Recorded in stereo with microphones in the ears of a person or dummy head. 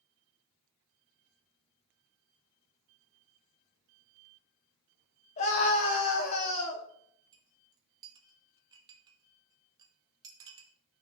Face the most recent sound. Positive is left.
turn(degrees=-20)  # may be behind; listen again after turning